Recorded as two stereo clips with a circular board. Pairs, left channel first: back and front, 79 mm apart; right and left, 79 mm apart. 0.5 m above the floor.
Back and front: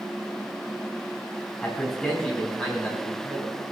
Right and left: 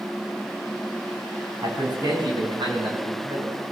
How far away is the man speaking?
About 4.5 m.